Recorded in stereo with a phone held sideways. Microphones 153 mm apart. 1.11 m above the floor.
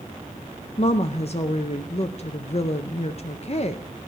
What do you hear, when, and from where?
0.8 s a woman speaking: 45° left (ahead or behind), 0.6 m